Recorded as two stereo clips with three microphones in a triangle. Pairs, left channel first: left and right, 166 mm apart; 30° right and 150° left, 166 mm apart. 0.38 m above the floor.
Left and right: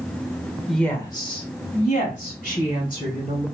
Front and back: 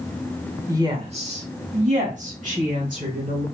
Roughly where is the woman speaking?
Behind.